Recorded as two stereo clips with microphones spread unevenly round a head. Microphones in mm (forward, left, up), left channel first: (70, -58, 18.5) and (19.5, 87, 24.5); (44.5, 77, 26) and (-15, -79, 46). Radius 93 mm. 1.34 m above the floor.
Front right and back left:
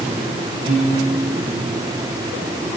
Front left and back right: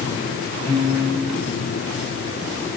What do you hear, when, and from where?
0.7 s a piano: 145° left, 1.3 m